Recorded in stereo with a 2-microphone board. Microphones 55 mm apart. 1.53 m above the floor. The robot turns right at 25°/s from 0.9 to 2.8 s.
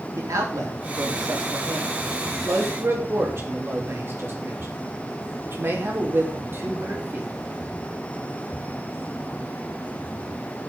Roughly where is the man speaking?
Right.